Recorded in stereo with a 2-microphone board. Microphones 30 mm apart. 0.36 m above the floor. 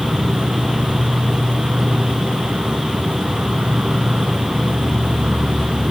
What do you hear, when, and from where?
0.0 s an insect: 50° right (ahead or behind)